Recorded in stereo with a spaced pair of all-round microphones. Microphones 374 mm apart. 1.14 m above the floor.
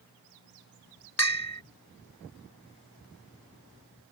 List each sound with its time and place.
1.2 s a bell: 40° left (ahead or behind)